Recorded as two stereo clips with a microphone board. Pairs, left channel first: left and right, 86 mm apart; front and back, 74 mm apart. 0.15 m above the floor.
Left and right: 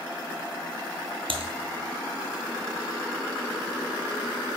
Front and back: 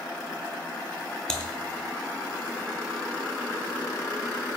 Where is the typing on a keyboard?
80° right, 0.8 m.